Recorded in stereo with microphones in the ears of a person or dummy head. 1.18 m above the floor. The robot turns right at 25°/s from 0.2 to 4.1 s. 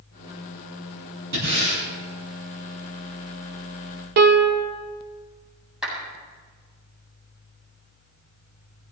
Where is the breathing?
60° right (ahead or behind), 7.5 m; by 1.8 s 75° right (ahead or behind), 7.5 m.